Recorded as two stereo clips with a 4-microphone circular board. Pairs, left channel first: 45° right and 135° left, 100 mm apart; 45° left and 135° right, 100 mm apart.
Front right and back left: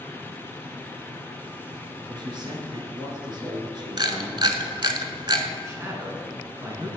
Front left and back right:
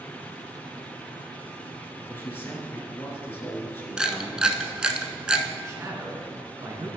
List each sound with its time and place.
2.1 s a man speaking: 110° left, 2 m
4.0 s a camera shutter: 145° left, 0.7 m
5.6 s a man speaking: straight behind, 1.8 m